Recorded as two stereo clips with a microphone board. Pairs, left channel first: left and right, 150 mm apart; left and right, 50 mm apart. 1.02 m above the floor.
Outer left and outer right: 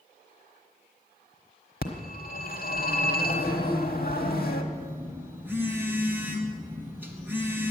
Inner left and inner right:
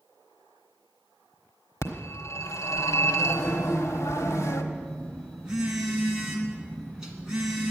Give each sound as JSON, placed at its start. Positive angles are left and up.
{"t": 1.8, "sound": "a phone ringing", "side_deg": 75, "distance_m": 1.3}
{"t": 4.7, "sound": "a phone buzzing", "side_deg": -15, "distance_m": 2.0}